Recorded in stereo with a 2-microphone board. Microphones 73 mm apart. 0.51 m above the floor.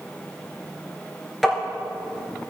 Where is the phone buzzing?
No phone buzzing in this recording.